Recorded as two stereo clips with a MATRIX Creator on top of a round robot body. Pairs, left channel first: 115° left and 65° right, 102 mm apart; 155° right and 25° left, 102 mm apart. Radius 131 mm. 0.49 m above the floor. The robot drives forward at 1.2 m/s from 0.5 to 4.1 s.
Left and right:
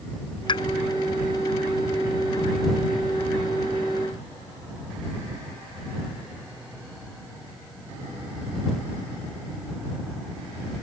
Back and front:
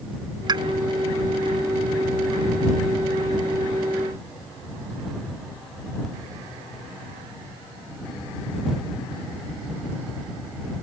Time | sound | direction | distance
0.5 | a pop | 70° left | ?